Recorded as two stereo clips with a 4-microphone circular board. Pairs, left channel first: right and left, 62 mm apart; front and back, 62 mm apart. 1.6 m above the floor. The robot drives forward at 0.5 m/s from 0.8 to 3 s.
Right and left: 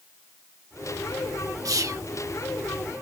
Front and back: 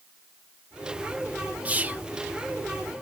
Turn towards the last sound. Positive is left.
turn(degrees=135)